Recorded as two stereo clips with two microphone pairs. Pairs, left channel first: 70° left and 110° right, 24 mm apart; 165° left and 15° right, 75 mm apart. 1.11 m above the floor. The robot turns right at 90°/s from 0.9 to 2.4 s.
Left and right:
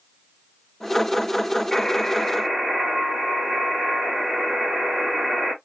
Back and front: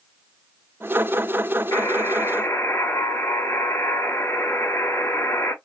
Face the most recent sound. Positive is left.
turn(degrees=-150)